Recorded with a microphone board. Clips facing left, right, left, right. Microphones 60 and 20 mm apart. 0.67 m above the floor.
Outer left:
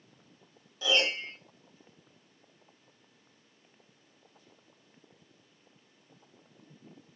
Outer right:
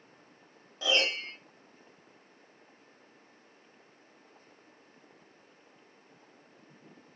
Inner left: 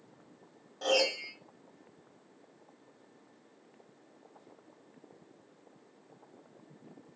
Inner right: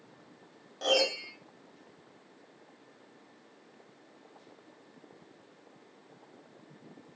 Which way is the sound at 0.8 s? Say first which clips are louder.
Outer left 1 dB, inner right 1 dB; 40° right (ahead or behind).